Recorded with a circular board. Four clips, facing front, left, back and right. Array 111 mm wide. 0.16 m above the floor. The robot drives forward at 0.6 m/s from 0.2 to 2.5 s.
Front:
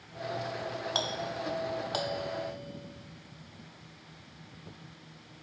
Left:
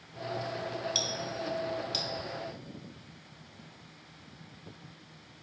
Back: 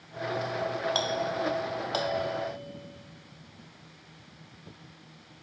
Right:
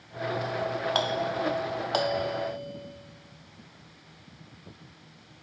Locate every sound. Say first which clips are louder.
0.9 s a doorbell: right 9 dB, back 5 dB; 90° right; by 5.4 s 100° right